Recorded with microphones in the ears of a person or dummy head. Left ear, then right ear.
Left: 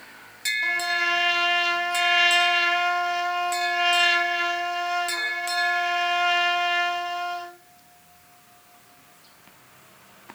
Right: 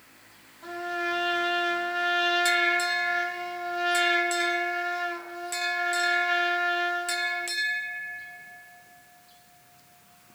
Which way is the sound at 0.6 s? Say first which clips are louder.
Left 5 dB; 70° left (ahead or behind).